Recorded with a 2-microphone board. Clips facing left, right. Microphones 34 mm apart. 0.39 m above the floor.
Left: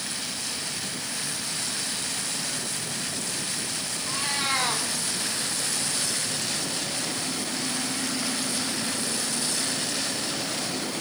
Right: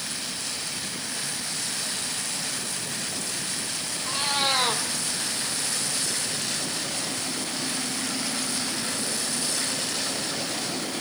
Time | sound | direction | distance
4.0 | a cat meowing | 65° right (ahead or behind) | 3.5 m